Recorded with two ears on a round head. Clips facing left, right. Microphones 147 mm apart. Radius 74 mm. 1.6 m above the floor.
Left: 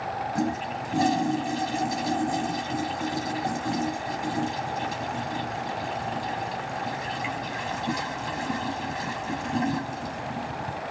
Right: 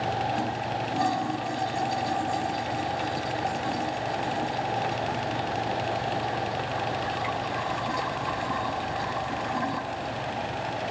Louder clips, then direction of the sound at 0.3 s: Left 1 dB; 25° left (ahead or behind).